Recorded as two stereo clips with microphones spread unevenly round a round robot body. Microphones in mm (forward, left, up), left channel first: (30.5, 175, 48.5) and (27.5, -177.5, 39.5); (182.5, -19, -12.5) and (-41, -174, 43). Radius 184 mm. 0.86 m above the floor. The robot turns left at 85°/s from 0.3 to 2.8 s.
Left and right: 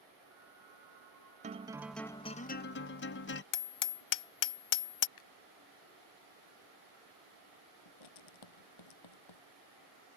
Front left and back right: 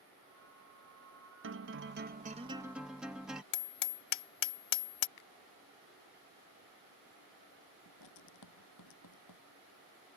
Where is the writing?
75° left.